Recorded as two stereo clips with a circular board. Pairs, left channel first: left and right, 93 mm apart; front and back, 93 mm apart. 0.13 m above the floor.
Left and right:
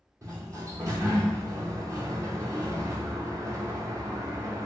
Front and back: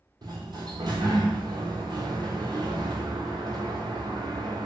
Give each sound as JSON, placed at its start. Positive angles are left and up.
{"t": 0.2, "sound": "a sliding door", "azimuth_deg": -145, "distance_m": 0.8}